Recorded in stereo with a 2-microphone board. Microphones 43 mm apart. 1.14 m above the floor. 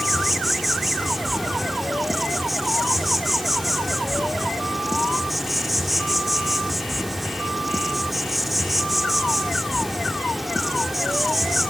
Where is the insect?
Centre (ahead or behind), 0.7 m.